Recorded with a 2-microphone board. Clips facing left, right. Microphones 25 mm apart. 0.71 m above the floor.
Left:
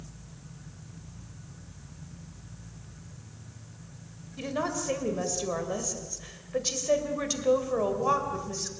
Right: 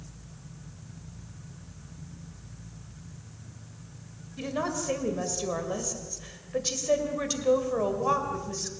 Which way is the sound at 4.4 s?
5° left (ahead or behind).